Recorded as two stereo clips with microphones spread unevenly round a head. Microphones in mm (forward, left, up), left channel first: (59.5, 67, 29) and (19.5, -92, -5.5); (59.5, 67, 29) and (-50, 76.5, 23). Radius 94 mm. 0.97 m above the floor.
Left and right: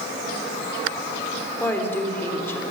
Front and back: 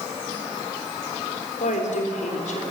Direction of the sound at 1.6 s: 5° right.